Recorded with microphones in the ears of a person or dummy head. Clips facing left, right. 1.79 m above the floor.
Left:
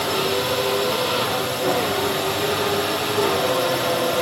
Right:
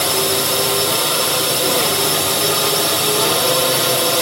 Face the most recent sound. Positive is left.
turn(degrees=-50)  # may be behind; listen again after turning